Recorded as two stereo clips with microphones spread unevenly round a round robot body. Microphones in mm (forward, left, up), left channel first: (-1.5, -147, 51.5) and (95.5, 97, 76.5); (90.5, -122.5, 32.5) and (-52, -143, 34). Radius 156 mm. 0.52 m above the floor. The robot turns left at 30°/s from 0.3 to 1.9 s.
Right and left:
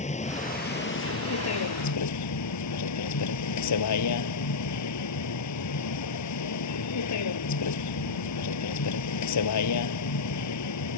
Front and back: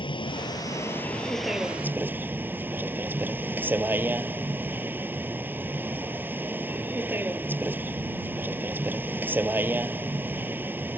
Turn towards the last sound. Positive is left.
turn(degrees=-95)